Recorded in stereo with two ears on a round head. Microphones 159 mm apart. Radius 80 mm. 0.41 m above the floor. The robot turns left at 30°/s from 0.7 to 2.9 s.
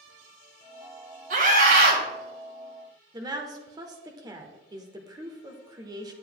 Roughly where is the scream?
Right.